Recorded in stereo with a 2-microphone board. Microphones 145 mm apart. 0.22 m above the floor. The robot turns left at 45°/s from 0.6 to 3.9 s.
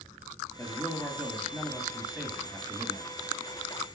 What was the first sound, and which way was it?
A man speaking, 15° left (ahead or behind).